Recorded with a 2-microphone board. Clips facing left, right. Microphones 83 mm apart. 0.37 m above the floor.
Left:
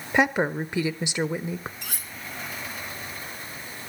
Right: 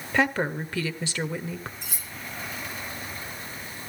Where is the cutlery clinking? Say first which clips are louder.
Left 2 dB; 70° left (ahead or behind), 3 m.